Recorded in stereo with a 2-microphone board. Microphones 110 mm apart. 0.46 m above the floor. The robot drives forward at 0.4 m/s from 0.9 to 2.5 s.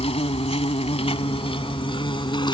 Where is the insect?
65° left (ahead or behind); by 2.5 s 50° left (ahead or behind).